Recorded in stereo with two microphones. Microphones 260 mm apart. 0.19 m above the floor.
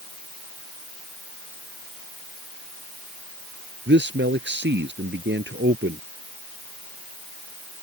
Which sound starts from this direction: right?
A man speaking, at 3.9 s.